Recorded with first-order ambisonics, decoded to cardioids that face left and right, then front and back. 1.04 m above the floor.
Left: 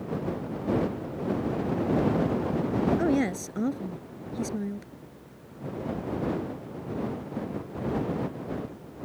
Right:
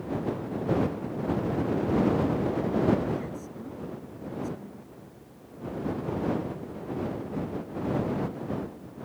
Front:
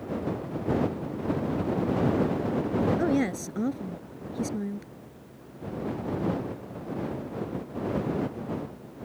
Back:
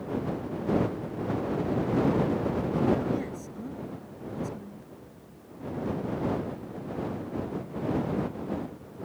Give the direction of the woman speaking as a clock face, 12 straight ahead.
10 o'clock.